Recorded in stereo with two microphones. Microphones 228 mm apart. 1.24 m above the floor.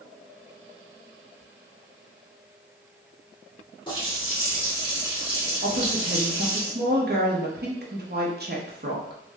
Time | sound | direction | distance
3.9 | a running tap | 20° left (ahead or behind) | 1.8 m
5.6 | a woman speaking | 45° right (ahead or behind) | 0.9 m